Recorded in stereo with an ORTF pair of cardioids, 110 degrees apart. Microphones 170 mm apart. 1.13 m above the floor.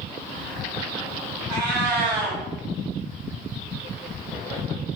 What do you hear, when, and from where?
1.5 s a cat meowing: 65° right, 1.3 m